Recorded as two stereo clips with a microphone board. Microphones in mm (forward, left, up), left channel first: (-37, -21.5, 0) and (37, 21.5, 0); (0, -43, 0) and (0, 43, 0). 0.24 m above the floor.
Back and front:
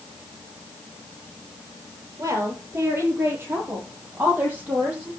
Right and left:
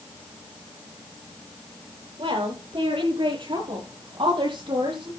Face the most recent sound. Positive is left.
turn(degrees=100)